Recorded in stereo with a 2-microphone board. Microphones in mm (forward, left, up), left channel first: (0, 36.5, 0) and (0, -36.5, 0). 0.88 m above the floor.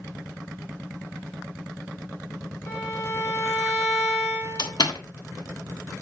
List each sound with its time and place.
2.7 s a violin: 35° left (ahead or behind), 8 m
4.6 s a door slam: 70° left (ahead or behind), 1.5 m